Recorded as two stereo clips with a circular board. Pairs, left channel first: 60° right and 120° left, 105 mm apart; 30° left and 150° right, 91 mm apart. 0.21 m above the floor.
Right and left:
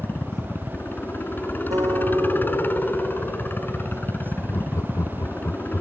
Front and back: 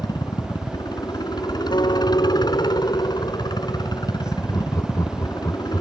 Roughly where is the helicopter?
Ahead.